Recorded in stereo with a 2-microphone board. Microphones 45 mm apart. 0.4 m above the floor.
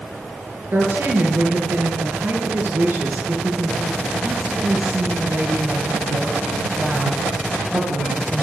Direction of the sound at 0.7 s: 50° right (ahead or behind).